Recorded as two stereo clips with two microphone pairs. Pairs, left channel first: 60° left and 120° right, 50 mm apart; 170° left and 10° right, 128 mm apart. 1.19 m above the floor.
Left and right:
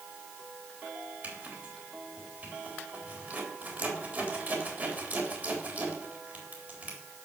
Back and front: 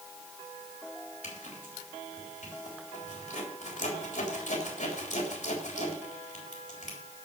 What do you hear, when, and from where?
1.2 s a zipper: 170° right, 3.5 m